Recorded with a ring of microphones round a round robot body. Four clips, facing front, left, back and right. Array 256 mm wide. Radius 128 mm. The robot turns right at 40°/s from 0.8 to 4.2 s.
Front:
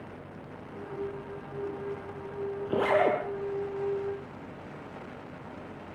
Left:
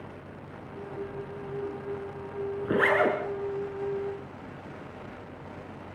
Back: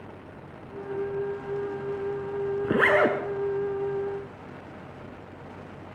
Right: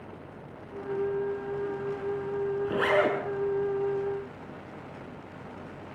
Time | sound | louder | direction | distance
2.6 | a zipper | left 2 dB, back 3 dB | 155° left | 6.5 m